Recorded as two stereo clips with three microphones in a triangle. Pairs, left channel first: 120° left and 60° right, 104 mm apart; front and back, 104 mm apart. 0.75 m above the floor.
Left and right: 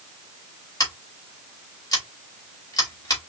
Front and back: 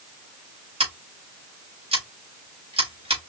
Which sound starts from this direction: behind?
Scissors, at 0.8 s.